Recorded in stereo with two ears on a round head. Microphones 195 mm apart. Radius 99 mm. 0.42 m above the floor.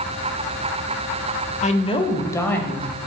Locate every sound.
1.6 s a woman speaking: 35° left (ahead or behind), 1.1 m; by 3.0 s 5° left (ahead or behind), 2 m